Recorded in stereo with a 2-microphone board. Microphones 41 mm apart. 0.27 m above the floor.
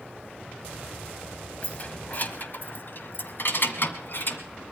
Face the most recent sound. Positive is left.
turn(degrees=55)  # may be behind; listen again after turning